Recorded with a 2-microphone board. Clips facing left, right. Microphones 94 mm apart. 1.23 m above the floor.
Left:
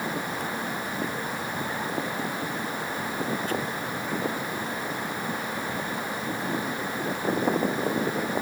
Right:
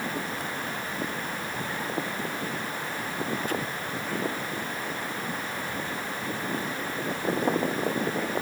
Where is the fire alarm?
No fire alarm in this recording.